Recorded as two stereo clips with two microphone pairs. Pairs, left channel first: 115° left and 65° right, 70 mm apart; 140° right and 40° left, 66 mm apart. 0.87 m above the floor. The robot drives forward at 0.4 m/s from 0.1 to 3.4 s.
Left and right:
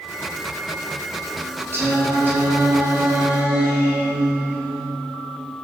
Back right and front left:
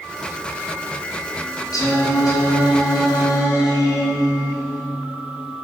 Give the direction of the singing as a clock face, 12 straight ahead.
4 o'clock.